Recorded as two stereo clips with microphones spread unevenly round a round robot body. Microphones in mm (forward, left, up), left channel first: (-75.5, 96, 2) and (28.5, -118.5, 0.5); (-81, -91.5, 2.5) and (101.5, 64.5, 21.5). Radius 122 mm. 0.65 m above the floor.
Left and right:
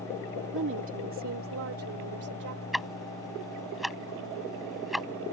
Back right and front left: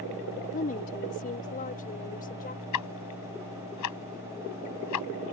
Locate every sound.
0.5 s a woman speaking: 90° right; by 2.6 s 85° right
2.7 s ticking: 155° right